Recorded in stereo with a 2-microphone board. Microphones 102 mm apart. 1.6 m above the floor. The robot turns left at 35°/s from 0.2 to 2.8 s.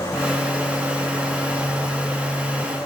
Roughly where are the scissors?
No scissors in this recording.